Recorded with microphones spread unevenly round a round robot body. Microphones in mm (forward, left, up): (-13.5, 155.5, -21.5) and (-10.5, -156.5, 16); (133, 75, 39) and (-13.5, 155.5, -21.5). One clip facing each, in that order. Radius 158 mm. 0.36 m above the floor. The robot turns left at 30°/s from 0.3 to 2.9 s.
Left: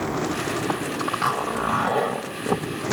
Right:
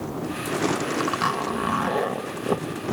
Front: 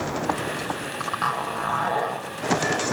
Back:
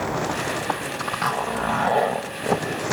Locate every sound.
1.0 s a zipper: 150° right, 1.7 m; by 2.6 s 165° left, 1.7 m